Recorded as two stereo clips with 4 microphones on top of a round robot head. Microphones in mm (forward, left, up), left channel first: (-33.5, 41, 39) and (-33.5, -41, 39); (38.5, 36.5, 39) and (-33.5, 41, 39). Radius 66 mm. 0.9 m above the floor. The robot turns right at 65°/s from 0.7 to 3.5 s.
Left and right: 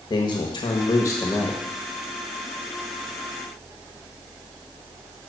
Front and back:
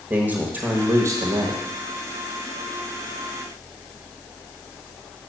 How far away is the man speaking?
About 1.3 m.